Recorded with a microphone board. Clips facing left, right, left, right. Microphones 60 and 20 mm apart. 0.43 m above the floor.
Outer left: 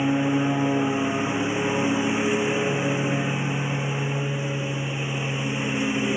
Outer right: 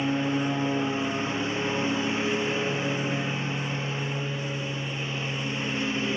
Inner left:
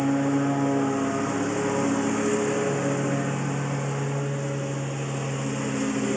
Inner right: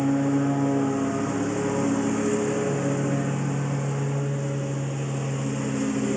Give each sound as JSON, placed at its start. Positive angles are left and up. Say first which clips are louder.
{"t": 0.0, "sound": "a lawn mower", "louder": "outer left 4 dB, even", "side_deg": 15}